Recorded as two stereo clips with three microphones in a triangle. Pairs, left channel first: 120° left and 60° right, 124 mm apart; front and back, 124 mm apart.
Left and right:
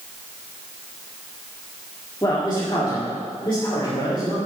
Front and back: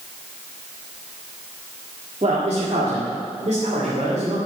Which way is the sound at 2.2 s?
170° left.